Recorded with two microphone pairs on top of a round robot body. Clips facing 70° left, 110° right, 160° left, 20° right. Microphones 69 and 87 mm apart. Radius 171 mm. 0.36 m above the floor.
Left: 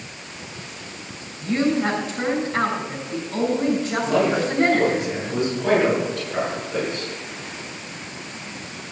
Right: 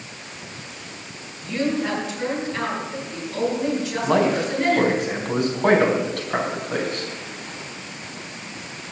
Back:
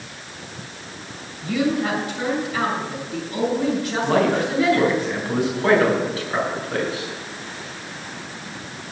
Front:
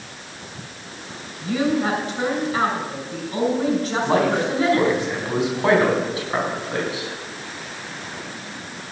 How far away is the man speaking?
About 4.5 m.